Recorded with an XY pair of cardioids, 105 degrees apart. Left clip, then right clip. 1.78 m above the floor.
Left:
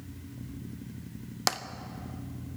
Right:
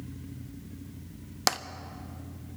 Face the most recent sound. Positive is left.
turn(degrees=-15)